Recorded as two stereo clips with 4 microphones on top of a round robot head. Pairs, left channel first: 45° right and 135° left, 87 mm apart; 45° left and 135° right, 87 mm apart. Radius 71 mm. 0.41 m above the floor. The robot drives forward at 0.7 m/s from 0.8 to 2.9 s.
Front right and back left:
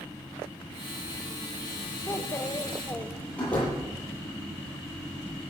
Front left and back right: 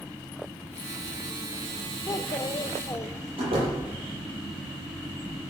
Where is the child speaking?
5° left, 1.5 m; by 3.2 s 10° left, 1.1 m.